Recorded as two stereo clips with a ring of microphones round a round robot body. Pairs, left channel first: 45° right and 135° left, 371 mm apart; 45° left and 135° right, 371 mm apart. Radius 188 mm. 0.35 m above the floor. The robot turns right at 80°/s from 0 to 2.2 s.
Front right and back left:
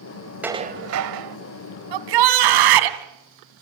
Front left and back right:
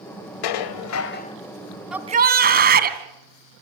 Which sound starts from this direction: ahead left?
Dishes clattering, at 0.4 s.